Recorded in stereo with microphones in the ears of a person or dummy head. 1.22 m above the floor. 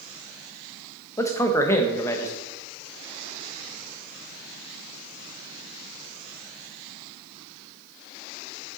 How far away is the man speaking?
About 0.9 m.